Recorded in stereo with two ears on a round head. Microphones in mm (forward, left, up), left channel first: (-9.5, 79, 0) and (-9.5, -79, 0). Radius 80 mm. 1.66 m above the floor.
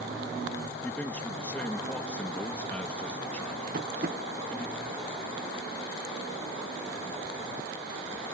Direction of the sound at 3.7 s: 50° right (ahead or behind).